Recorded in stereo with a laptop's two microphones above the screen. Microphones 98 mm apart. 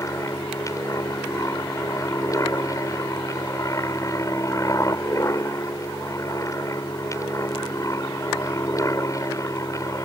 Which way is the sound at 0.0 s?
30° left (ahead or behind).